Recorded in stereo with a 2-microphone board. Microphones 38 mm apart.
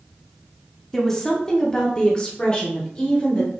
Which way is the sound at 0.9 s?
10° left (ahead or behind).